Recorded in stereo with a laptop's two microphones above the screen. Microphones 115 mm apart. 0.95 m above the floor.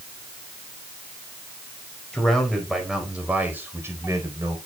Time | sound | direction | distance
2.1 | a man speaking | 5° left (ahead or behind) | 4.5 m